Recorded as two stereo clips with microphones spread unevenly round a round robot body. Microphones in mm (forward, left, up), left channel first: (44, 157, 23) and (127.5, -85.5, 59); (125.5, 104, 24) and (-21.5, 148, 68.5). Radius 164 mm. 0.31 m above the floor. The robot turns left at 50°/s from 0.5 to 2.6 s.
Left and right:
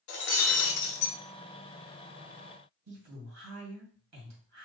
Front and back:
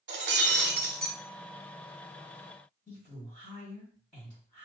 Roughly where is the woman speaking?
Right.